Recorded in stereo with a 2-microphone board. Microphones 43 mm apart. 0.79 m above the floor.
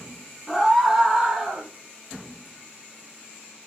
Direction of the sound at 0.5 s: 5° right (ahead or behind).